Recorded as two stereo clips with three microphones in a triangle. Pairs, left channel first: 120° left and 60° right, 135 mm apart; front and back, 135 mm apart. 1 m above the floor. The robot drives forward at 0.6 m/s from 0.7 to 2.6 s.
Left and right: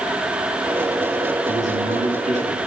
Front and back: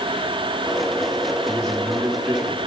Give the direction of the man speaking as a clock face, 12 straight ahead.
3 o'clock.